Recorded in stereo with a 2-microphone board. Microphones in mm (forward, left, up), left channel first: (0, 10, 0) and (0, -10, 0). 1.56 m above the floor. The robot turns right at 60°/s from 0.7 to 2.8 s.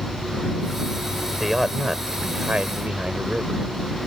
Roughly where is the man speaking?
Behind.